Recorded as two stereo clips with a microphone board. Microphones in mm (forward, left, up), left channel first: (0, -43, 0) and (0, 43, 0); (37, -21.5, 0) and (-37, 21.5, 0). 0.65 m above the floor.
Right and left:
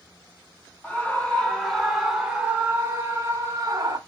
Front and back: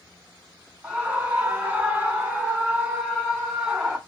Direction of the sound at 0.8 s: 150° right.